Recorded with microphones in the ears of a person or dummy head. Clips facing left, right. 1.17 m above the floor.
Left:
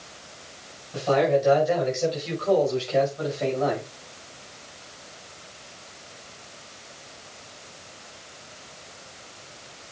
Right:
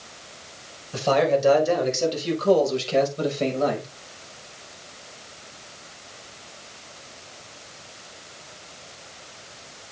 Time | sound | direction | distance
0.9 | a man speaking | 70° right (ahead or behind) | 4.5 m